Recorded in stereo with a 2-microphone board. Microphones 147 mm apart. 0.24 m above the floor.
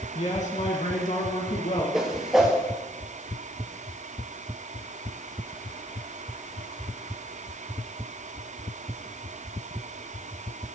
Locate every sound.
0.1 s a man speaking: 55° left (ahead or behind), 2.5 m; by 1.8 s 65° left (ahead or behind), 3 m
1.9 s a whoosh: 5° right (ahead or behind), 4.5 m